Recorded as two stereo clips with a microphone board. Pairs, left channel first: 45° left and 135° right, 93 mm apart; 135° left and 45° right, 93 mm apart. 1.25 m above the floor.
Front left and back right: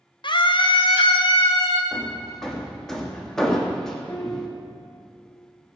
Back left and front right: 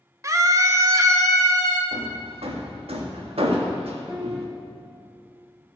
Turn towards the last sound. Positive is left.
turn(degrees=5)